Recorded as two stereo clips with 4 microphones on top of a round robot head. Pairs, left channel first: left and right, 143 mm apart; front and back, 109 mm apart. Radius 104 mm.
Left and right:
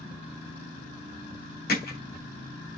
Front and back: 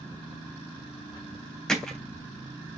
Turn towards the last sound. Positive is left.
turn(degrees=85)